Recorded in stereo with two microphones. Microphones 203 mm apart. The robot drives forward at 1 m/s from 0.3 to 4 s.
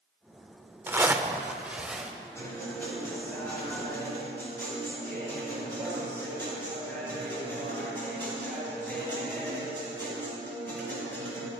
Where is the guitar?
15° left (ahead or behind), 4.5 m; by 11.5 s 10° left (ahead or behind), 6 m.